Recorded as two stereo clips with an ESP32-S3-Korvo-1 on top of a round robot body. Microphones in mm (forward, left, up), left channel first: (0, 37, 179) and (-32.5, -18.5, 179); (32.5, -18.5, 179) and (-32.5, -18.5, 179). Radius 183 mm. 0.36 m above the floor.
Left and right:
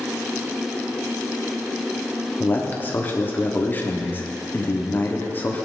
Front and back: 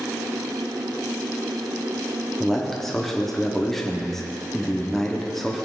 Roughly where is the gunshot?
No gunshot in this recording.